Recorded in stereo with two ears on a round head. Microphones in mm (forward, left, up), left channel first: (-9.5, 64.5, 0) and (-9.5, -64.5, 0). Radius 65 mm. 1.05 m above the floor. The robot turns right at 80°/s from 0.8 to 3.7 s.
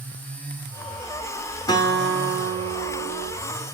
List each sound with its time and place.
1.7 s a guitar: 155° left, 0.6 m; by 3.3 s 75° right, 0.6 m